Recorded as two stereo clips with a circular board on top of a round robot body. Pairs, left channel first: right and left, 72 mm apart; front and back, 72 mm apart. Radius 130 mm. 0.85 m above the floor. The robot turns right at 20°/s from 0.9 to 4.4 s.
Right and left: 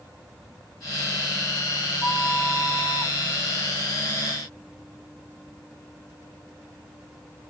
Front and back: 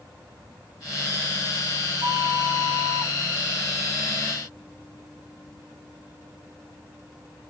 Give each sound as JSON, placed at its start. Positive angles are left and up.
{"t": 2.0, "sound": "a flute", "azimuth_deg": -155, "distance_m": 0.7}